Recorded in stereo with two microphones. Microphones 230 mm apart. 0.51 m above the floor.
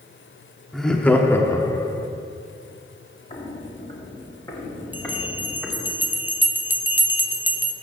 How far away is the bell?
About 0.6 m.